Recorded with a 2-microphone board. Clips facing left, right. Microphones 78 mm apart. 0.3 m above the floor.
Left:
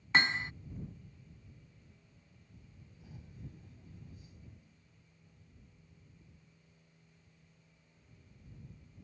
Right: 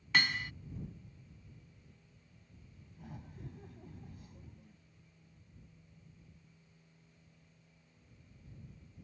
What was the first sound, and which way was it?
Hammering, 30° left (ahead or behind).